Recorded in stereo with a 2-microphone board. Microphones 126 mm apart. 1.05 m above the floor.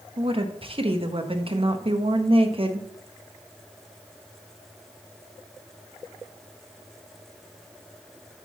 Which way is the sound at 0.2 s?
45° right (ahead or behind).